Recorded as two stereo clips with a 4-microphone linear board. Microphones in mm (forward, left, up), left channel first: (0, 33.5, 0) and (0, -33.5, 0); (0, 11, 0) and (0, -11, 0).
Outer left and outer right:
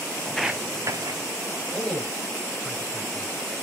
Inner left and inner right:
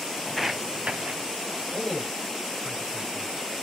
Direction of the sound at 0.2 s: 20° left (ahead or behind).